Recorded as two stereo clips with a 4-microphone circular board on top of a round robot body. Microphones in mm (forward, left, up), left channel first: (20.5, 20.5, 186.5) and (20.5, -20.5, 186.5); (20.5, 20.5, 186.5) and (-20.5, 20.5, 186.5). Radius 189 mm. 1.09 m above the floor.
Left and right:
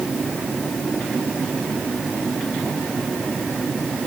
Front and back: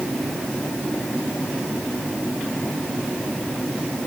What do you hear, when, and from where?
Only background noise.